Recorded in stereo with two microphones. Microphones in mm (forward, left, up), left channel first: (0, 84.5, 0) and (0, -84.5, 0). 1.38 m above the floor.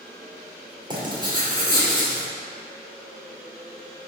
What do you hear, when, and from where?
0.9 s writing: 25° right (ahead or behind), 2 m